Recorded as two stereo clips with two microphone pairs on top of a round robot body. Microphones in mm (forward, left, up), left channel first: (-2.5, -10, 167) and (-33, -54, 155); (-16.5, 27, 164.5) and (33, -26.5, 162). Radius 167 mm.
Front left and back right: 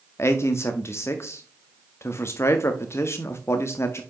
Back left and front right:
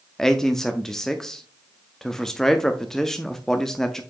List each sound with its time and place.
0.2 s a man speaking: 50° left, 0.9 m